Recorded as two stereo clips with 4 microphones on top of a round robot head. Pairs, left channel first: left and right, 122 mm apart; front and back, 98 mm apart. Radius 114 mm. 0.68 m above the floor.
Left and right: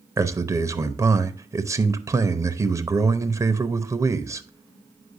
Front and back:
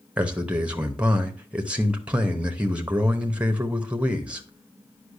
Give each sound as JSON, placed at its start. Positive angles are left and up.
{"t": 0.2, "sound": "a man speaking", "azimuth_deg": -120, "distance_m": 0.9}